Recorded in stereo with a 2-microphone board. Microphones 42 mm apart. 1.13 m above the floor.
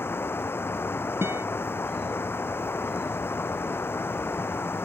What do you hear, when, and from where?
0.0 s running water: 65° left (ahead or behind)
1.2 s a guitar: 85° right